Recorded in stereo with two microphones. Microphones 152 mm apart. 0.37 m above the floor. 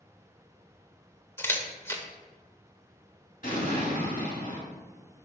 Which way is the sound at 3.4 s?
65° left (ahead or behind).